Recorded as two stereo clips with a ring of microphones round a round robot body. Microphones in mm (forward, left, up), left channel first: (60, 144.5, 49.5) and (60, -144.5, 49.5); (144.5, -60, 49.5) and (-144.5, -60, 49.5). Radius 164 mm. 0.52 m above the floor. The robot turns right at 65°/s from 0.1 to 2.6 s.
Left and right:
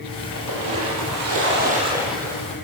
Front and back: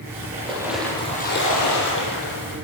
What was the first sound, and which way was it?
A splash, 120° right.